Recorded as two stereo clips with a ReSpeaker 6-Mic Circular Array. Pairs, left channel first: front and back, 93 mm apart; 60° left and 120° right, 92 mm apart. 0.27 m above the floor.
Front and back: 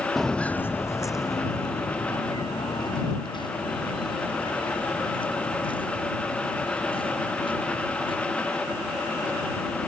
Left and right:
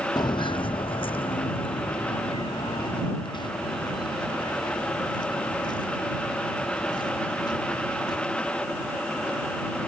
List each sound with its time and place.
0.2 s footsteps: 90° left; by 8.2 s 20° left